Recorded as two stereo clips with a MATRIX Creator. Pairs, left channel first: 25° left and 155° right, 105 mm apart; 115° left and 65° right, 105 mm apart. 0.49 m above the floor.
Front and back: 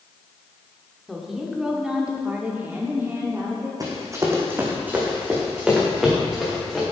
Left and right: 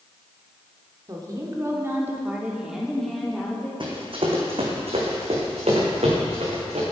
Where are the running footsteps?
105° right, 2.0 m; by 6.8 s 60° right, 3.5 m.